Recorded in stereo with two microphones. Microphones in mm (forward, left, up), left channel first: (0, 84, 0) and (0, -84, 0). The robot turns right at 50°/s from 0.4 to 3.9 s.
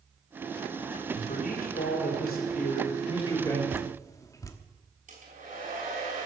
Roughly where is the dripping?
Centre.